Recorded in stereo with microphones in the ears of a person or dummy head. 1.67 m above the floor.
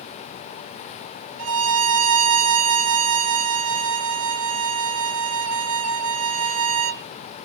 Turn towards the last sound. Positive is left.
turn(degrees=-70)  # may be behind; listen again after turning